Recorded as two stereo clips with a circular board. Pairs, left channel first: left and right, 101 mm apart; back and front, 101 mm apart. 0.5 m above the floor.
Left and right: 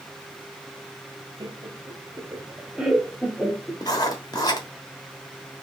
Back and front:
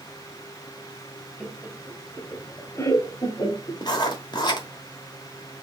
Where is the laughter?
80° right, 1.0 m; by 3.8 s 155° left, 1.1 m.